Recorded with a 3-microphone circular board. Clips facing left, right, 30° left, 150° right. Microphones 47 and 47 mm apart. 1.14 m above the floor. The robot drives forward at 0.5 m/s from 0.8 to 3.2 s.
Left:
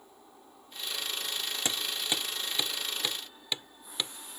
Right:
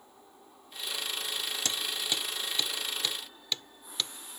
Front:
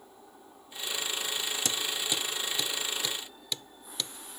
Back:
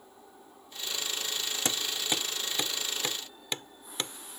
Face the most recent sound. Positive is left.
turn(degrees=160)